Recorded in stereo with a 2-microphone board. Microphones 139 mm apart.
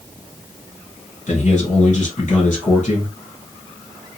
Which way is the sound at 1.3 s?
50° left (ahead or behind).